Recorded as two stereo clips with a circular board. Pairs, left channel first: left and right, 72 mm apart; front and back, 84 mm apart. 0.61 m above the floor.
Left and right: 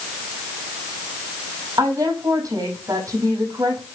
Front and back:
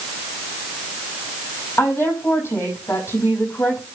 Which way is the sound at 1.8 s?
60° right.